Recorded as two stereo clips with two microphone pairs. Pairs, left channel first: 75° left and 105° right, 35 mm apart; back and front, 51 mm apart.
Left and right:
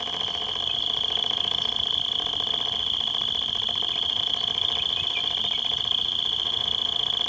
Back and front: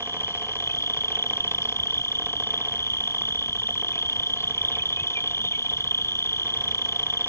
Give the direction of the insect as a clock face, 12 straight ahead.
7 o'clock.